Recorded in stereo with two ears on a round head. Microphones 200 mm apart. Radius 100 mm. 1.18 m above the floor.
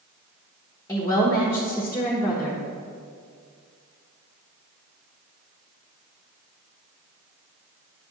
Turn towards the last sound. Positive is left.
turn(degrees=15)  # may be behind; listen again after turning